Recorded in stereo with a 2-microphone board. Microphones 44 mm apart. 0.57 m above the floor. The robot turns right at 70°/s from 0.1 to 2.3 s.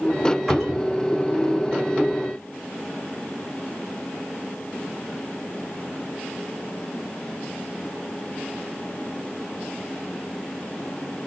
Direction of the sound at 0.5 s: 5° right.